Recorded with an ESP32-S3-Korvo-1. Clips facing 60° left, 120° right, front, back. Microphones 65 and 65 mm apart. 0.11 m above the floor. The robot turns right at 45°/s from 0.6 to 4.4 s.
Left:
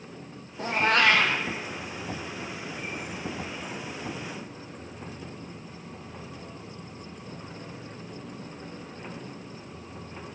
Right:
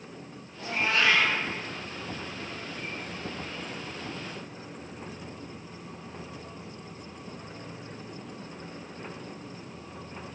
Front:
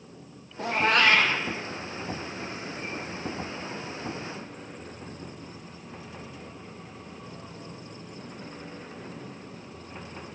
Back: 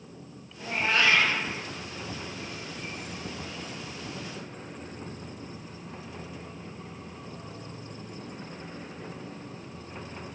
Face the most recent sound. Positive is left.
turn(degrees=-175)